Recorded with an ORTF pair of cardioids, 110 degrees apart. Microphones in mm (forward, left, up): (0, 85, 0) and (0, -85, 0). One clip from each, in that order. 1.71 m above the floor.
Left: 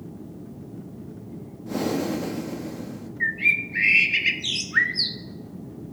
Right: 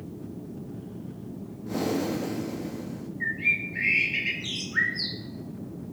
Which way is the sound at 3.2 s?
40° left.